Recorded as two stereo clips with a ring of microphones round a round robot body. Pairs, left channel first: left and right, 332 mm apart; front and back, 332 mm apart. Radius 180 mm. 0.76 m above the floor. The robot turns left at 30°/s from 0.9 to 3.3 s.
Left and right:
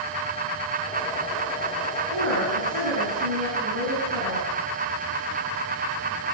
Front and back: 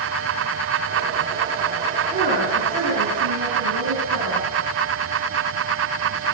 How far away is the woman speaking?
About 10 m.